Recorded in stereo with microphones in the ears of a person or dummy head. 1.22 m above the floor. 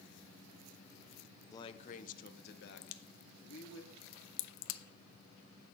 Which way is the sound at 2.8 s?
75° left (ahead or behind).